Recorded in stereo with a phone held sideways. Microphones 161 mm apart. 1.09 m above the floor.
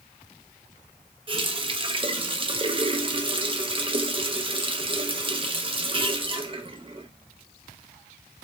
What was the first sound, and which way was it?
A running tap, 35° right (ahead or behind).